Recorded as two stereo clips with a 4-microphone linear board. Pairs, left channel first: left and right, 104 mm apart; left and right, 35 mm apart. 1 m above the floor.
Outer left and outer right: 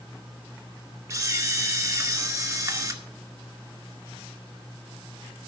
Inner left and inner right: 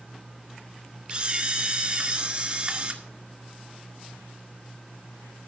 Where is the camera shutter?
35° right (ahead or behind), 1.9 m.